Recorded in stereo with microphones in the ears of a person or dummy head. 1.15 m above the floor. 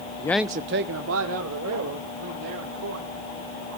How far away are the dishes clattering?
I don't hear dishes clattering.